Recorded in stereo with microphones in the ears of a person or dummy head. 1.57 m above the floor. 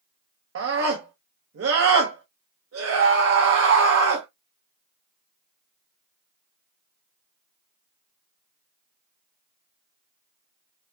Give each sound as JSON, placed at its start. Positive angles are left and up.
{"t": 0.6, "sound": "a scream", "side_deg": -75, "distance_m": 0.9}